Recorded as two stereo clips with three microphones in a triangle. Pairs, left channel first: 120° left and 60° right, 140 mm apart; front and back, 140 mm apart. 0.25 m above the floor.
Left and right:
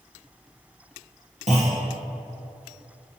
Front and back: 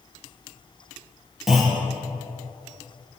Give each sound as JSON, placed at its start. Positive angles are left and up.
{"t": 1.5, "sound": "a clunk", "azimuth_deg": -90, "distance_m": 2.0}